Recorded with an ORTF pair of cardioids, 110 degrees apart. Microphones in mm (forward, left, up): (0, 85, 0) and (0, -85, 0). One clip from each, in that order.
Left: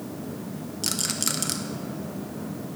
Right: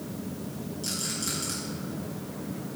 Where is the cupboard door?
I don't hear a cupboard door.